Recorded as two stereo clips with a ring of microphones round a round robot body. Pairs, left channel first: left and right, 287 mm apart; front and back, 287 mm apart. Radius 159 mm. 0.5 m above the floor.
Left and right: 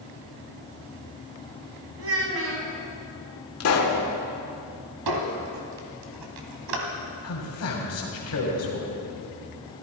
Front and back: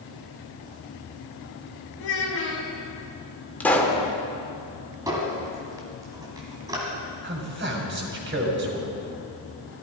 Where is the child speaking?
50° right, 3 m.